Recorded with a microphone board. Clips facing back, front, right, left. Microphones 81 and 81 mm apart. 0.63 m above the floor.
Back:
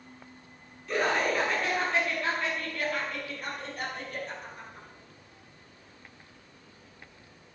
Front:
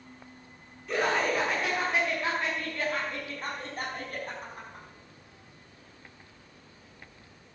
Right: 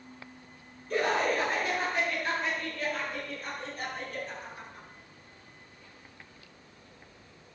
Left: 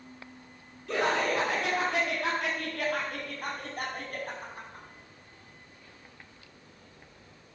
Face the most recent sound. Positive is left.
turn(degrees=40)